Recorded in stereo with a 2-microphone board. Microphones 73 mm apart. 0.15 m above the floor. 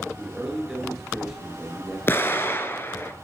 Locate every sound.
0.2 s a man speaking: 5° right (ahead or behind), 2 m
2.1 s an explosion: 30° left (ahead or behind), 0.7 m